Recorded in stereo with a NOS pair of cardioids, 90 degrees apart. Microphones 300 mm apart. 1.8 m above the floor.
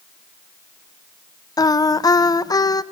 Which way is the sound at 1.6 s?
10° left.